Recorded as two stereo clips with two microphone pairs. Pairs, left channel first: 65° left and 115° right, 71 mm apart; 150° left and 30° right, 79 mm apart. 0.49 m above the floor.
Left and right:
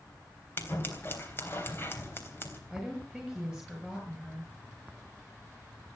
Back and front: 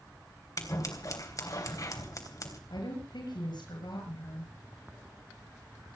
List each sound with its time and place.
0.6 s scissors: 115° left, 3.5 m
2.7 s a woman speaking: 155° left, 7 m